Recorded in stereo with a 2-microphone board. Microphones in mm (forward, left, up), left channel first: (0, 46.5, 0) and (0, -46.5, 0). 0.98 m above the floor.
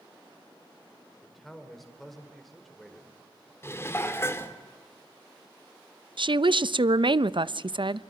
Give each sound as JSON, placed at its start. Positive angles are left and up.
{"t": 1.2, "sound": "a man speaking", "side_deg": 0, "distance_m": 4.5}
{"t": 3.6, "sound": "dishes clattering", "side_deg": 25, "distance_m": 2.0}
{"t": 6.2, "sound": "a woman speaking", "side_deg": -60, "distance_m": 0.6}